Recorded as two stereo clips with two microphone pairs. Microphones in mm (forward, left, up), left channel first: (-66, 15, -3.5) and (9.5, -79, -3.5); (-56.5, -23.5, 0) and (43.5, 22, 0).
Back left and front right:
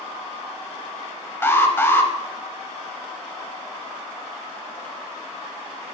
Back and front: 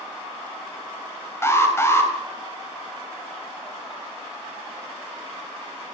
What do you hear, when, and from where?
1.4 s an alarm: straight behind, 0.7 m